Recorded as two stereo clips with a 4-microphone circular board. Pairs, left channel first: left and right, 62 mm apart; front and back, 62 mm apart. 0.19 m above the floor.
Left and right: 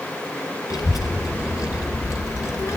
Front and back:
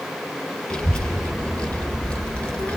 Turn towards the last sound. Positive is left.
turn(degrees=70)